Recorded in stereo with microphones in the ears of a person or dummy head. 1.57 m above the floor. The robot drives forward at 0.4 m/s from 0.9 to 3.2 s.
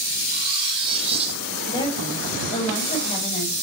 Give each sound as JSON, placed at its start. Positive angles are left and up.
{"t": 0.3, "sound": "cutlery clinking", "side_deg": -30, "distance_m": 2.0}
{"t": 1.7, "sound": "a woman speaking", "side_deg": 30, "distance_m": 7.0}